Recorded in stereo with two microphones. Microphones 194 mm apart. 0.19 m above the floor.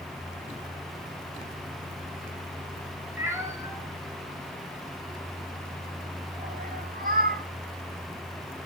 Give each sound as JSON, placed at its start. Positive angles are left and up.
{"t": 3.2, "sound": "a cat meowing", "side_deg": -10, "distance_m": 7.5}